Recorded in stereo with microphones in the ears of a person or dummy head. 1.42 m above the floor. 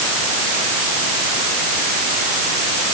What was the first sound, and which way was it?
Only background noise.